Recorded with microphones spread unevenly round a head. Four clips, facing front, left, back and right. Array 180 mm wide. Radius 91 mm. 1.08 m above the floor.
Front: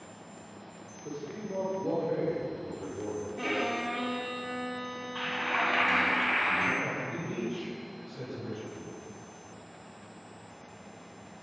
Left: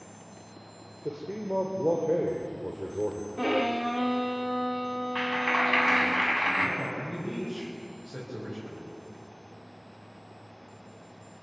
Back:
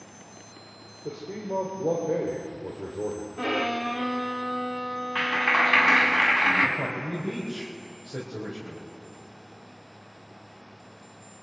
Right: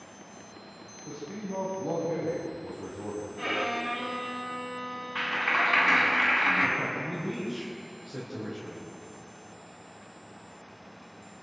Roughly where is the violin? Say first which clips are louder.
Left 6 dB, back 5 dB; behind left.